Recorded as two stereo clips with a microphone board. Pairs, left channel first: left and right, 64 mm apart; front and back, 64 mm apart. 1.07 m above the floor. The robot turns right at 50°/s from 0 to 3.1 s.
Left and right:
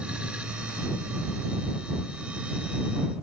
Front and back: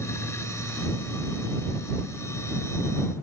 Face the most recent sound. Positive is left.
No sound to turn to.